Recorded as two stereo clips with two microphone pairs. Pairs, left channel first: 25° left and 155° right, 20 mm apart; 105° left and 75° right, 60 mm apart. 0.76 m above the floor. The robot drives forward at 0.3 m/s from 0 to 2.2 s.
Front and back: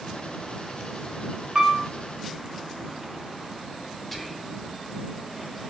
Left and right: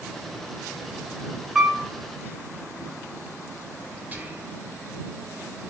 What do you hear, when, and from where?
1.6 s a piano: 150° right, 0.6 m; by 1.8 s 155° right, 0.6 m
4.1 s whispering: 50° right, 0.7 m